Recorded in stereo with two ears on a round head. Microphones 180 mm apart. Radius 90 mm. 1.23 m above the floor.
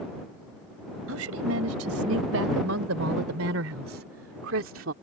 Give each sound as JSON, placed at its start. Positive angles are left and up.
{"t": 1.1, "sound": "a woman speaking", "side_deg": -85}